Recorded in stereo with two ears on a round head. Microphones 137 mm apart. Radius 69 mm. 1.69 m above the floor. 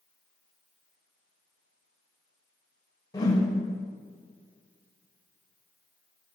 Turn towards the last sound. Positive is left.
turn(degrees=25)  # may be behind; listen again after turning